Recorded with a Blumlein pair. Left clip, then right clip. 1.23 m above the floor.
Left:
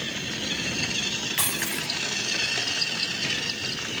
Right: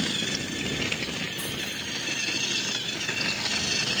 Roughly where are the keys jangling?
Ahead left.